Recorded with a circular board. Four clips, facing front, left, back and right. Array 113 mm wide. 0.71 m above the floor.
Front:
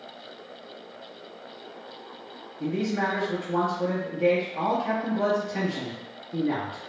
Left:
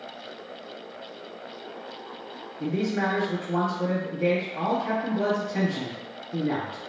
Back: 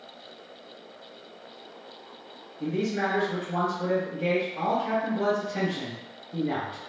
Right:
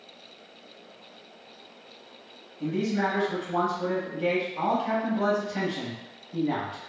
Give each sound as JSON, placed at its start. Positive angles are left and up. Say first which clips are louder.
{"t": 2.6, "sound": "a man speaking", "louder": "even, front 1 dB", "azimuth_deg": 60, "distance_m": 0.8}